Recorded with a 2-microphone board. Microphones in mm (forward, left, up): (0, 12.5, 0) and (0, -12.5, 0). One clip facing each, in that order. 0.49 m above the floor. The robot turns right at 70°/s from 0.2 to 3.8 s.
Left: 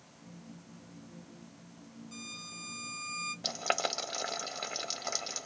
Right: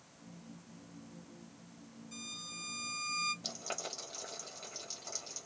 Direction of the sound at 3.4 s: 35° left (ahead or behind).